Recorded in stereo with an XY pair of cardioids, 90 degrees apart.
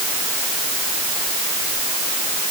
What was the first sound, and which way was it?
Only background noise.